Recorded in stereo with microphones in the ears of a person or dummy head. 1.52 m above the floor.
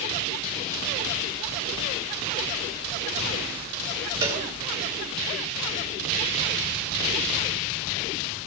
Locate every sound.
4.2 s a cowbell: 10° right (ahead or behind), 1.3 m